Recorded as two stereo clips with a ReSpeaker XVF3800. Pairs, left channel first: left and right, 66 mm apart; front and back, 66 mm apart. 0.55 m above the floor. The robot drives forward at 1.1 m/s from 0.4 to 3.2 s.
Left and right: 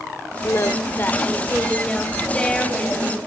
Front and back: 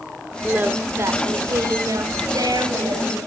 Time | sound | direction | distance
0.4 | singing | 115° left | 1.1 m